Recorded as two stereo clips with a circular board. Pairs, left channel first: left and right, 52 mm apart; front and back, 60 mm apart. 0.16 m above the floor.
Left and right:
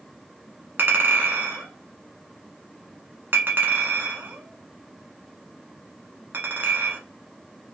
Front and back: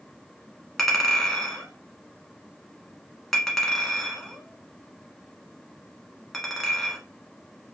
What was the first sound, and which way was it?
A clink, 80° right.